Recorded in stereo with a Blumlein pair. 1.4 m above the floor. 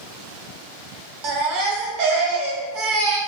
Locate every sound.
1.2 s a baby crying: 45° right, 0.6 m